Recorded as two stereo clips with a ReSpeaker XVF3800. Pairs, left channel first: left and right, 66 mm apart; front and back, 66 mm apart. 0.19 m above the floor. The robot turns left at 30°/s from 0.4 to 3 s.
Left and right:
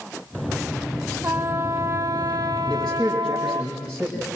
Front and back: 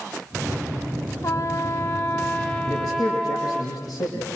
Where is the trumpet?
25° right, 1.8 m; by 3.6 s 80° right, 1.8 m.